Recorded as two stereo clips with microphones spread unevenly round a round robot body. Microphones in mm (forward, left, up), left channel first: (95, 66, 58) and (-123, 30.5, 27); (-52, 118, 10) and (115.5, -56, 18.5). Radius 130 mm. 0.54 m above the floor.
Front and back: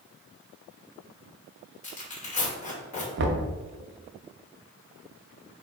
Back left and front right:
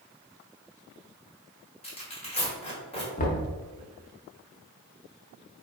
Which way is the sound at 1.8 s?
70° left.